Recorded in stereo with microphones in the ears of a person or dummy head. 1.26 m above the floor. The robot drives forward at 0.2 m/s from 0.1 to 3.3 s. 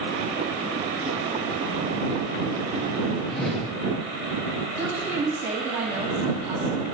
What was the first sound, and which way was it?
A whoosh, centre (ahead or behind).